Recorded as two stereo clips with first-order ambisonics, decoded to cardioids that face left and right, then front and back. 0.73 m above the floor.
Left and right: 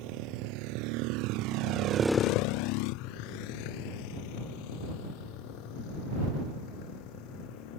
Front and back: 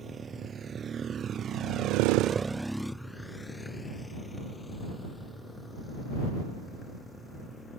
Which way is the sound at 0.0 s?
110° right.